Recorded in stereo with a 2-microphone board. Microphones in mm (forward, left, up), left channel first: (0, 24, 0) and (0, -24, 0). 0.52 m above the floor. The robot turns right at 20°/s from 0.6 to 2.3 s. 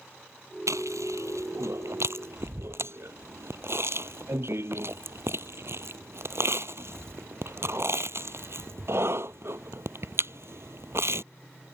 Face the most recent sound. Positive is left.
turn(degrees=-60)  # may be behind; listen again after turning